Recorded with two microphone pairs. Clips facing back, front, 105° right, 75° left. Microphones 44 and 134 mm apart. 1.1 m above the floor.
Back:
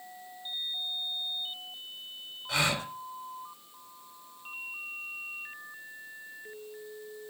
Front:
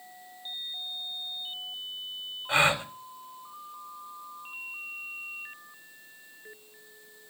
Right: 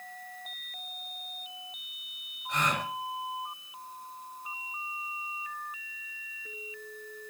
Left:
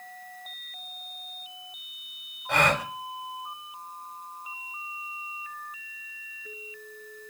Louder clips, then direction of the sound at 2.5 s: Front 5 dB, left 6 dB; 60° left.